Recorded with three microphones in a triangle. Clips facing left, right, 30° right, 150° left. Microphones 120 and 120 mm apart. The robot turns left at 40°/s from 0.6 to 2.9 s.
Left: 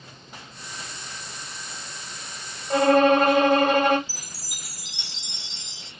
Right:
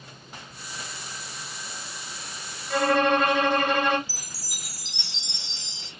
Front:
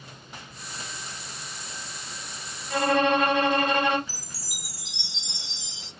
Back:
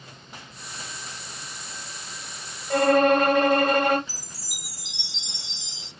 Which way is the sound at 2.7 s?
125° left.